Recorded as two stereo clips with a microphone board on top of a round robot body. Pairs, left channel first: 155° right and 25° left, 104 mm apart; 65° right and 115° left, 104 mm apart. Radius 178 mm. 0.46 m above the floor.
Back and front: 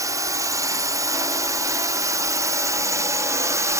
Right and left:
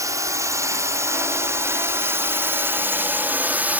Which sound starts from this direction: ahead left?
A drone, at 0.0 s.